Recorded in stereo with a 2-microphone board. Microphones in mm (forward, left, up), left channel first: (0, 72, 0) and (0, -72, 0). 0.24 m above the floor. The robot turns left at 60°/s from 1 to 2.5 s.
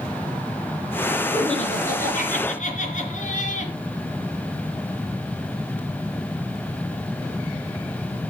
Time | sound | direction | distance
1.3 | laughter | 135° left | 3 m